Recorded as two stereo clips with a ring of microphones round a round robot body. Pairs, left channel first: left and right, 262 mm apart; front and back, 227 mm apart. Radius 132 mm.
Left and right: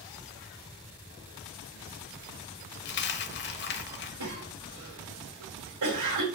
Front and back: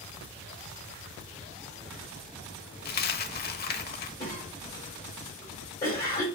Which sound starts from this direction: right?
A cough, at 4.2 s.